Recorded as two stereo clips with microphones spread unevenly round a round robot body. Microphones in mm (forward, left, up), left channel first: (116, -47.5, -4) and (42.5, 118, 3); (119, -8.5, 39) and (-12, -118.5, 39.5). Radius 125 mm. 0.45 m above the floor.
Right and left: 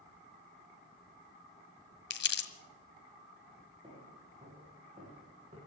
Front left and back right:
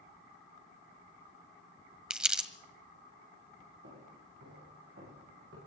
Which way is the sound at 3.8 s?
175° right.